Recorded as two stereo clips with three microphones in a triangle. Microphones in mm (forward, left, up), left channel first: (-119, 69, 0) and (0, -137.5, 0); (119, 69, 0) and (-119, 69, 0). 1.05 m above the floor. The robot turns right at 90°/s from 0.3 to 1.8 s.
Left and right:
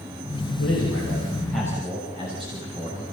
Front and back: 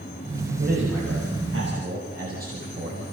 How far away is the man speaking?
About 6 m.